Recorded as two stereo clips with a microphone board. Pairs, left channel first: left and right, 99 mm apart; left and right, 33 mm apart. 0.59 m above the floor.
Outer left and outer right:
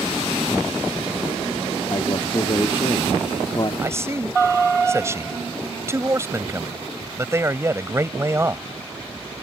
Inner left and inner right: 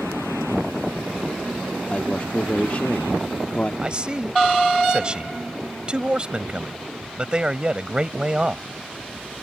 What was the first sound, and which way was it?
A man speaking, 45° left (ahead or behind).